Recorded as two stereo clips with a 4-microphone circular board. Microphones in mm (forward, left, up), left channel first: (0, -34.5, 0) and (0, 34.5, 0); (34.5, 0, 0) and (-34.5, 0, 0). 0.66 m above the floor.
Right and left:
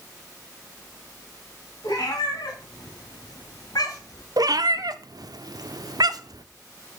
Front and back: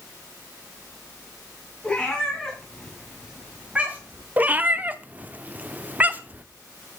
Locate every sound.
1.8 s a cat meowing: 75° right, 2.5 m; by 4.2 s 125° right, 1.6 m
4.4 s a cat meowing: 115° left, 0.5 m